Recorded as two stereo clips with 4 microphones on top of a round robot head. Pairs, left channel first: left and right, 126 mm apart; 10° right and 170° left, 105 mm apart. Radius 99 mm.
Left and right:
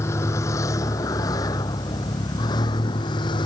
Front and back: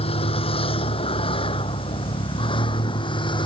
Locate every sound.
0.0 s a vehicle: 20° left; by 3.5 s 30° left